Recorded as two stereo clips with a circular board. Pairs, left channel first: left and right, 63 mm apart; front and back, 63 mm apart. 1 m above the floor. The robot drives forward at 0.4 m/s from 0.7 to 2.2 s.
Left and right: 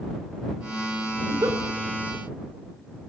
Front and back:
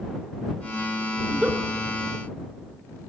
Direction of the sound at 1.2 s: 105° right.